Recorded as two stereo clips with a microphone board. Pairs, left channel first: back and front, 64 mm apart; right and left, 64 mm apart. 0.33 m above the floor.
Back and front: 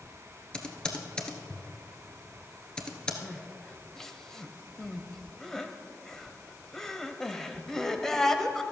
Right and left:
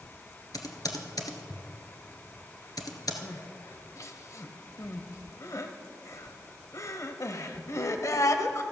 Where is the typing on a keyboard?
105° right, 1.2 m.